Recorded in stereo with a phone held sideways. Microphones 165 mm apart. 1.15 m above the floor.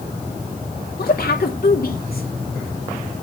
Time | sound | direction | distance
1.0 | a woman speaking | 65° left (ahead or behind) | 2.5 m